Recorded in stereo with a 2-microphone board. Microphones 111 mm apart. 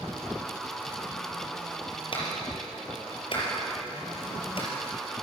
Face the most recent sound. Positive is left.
turn(degrees=50)  # may be behind; listen again after turning